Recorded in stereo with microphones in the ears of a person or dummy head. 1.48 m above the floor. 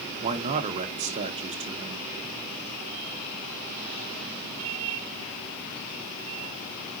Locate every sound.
0.2 s a man speaking: 30° right (ahead or behind), 1.2 m